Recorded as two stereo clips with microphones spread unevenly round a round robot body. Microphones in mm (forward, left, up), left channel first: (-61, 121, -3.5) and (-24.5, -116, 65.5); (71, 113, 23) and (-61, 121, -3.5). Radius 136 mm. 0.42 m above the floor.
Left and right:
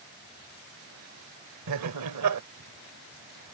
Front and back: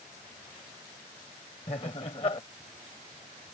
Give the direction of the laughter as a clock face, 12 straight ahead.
2 o'clock.